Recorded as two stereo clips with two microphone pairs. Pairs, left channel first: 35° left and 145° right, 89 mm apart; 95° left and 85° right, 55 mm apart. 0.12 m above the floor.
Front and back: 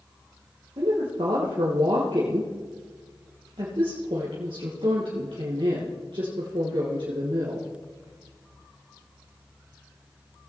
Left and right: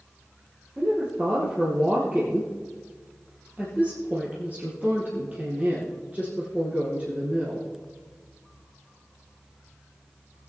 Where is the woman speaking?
145° right, 2.5 m.